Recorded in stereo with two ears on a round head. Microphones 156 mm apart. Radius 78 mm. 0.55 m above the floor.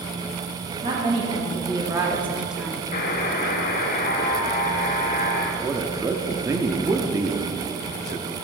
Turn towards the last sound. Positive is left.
turn(degrees=-20)  # may be behind; listen again after turning